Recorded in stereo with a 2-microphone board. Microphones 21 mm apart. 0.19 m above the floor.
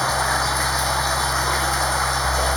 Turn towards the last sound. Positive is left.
turn(degrees=10)  # may be behind; listen again after turning